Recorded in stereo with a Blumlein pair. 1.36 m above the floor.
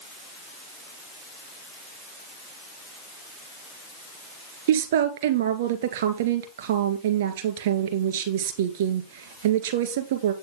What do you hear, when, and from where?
4.7 s a woman speaking: 55° right, 1.8 m